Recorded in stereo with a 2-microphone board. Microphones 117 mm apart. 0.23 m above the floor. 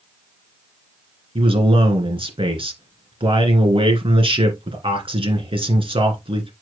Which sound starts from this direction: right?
A man speaking, at 1.4 s.